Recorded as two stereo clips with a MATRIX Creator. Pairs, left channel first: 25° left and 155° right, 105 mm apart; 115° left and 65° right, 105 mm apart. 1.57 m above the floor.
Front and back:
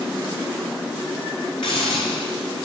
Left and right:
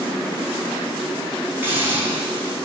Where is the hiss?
Straight ahead, 4 m.